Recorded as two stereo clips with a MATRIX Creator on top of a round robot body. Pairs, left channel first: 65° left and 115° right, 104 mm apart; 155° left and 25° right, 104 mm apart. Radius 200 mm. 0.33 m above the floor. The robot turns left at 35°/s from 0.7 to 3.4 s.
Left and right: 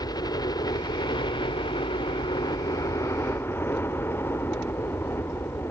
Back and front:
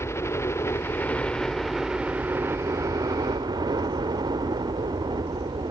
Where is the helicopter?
100° left; by 5.7 s 5° left.